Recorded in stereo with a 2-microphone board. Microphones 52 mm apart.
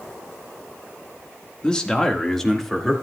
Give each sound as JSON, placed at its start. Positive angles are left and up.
{"t": 1.6, "sound": "a man speaking", "side_deg": 20, "distance_m": 1.7}